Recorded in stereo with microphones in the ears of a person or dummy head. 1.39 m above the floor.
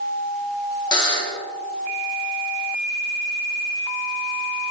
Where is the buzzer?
25° left (ahead or behind), 1.5 m.